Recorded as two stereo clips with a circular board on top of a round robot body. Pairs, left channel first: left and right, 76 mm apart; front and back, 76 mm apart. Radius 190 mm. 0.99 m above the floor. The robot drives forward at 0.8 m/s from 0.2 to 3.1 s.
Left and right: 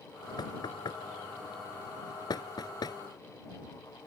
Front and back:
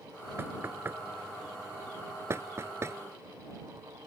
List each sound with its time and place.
0.4 s knocking: 120° left; by 3.0 s 125° left